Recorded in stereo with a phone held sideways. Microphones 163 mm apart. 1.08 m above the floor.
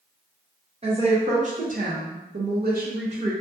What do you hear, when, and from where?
0.8 s a woman speaking: 40° right (ahead or behind), 1.0 m